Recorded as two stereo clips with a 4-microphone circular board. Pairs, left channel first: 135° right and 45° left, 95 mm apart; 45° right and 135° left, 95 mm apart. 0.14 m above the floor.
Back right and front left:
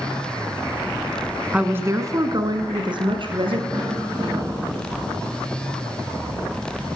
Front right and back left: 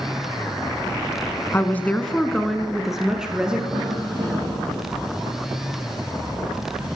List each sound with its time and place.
1.5 s a woman speaking: 15° right, 1.4 m; by 3.6 s 55° left, 3 m
3.7 s a cough: 95° left, 7 m